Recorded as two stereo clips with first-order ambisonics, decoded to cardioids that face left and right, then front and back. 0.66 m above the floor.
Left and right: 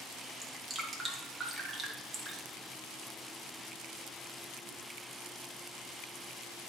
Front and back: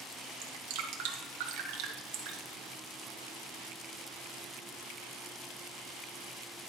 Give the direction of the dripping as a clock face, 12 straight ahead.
6 o'clock.